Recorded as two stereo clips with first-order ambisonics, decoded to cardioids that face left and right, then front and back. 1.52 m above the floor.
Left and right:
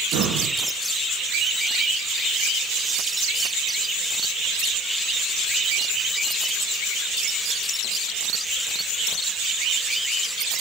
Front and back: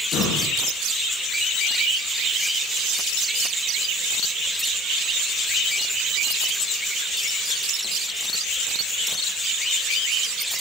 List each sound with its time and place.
0.1 s breathing: 50° right, 2.5 m